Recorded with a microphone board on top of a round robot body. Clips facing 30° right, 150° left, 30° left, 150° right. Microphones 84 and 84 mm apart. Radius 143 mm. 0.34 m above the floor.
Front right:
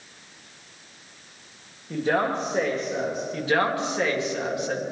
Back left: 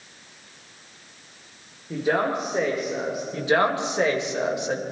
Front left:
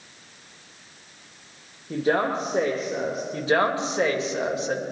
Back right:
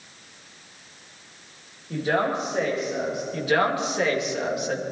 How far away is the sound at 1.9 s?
About 2 m.